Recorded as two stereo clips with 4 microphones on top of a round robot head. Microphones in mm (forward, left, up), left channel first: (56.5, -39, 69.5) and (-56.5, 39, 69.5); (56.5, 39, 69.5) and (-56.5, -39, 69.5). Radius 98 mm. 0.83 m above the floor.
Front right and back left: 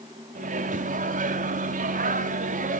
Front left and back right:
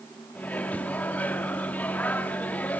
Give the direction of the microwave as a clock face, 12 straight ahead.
8 o'clock.